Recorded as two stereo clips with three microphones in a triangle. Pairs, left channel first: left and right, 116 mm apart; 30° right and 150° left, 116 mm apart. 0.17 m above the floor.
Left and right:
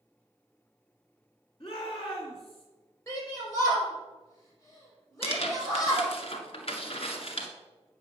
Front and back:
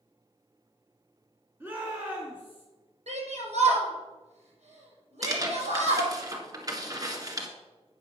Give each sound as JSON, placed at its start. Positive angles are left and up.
{"t": 1.6, "sound": "a shout", "azimuth_deg": 85, "distance_m": 2.0}
{"t": 3.1, "sound": "a shout", "azimuth_deg": 150, "distance_m": 4.5}
{"t": 5.2, "sound": "tearing paper", "azimuth_deg": 100, "distance_m": 1.5}